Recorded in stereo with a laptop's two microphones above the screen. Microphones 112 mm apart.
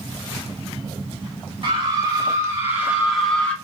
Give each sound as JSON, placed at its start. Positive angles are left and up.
{"t": 1.6, "sound": "a scream", "side_deg": -45, "distance_m": 2.0}